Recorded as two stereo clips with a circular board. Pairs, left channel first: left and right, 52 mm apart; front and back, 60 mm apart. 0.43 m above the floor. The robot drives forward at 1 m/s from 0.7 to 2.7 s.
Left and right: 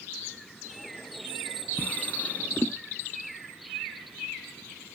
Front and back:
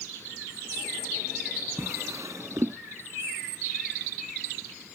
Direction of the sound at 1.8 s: 145° left.